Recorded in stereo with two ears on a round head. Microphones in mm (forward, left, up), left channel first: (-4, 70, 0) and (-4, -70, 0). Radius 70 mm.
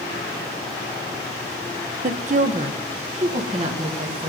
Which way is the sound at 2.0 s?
50° right (ahead or behind).